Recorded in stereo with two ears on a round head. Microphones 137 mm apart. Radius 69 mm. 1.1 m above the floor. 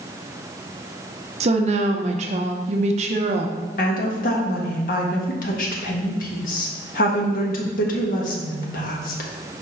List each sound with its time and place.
1.4 s a woman speaking: 45° right (ahead or behind), 0.8 m
3.8 s a woman speaking: 55° left (ahead or behind), 1.5 m